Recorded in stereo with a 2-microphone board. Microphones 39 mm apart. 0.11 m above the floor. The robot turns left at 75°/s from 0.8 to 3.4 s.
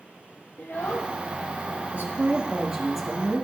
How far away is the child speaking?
About 1.7 m.